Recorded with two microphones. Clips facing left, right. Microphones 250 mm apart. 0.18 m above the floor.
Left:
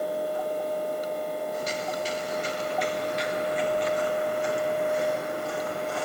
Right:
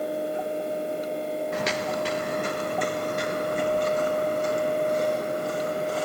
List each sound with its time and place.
1.5 s footsteps: 80° right, 1.8 m; by 6.1 s 40° right (ahead or behind), 7.5 m